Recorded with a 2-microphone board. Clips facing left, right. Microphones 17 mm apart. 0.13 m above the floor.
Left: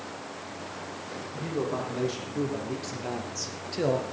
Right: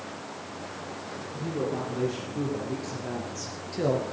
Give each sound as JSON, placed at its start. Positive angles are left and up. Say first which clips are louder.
{"t": 1.3, "sound": "a man speaking", "louder": "even", "side_deg": 30, "distance_m": 5.5}